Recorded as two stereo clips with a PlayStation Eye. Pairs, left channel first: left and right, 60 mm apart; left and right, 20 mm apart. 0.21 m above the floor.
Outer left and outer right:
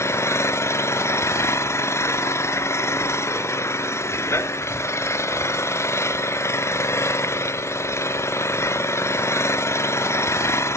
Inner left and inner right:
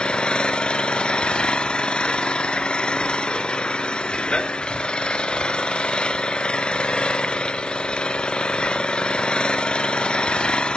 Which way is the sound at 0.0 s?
55° left (ahead or behind).